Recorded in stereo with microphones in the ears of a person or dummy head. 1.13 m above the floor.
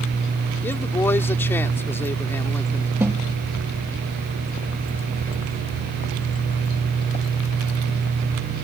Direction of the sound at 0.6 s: 15° left (ahead or behind).